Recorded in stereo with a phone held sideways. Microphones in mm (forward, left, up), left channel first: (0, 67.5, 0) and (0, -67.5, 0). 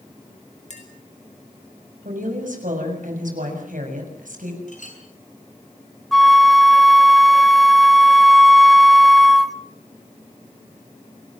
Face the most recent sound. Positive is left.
turn(degrees=0)  # may be behind; listen again after turning